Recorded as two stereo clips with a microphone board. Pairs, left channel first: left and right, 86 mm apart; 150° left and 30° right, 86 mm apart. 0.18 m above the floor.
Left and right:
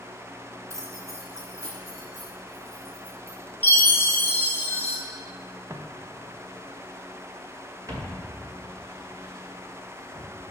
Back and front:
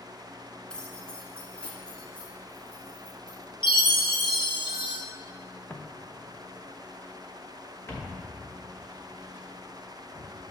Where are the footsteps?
145° right, 1.2 m.